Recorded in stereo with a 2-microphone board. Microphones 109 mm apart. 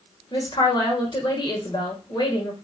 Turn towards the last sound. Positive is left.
turn(degrees=40)  # may be behind; listen again after turning